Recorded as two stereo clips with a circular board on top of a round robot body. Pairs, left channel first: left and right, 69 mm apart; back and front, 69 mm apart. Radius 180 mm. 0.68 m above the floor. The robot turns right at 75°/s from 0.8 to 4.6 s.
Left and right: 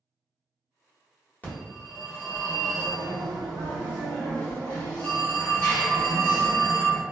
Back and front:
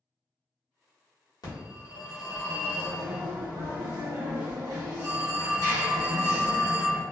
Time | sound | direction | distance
1.4 | a phone ringing | 160° left | 1.4 m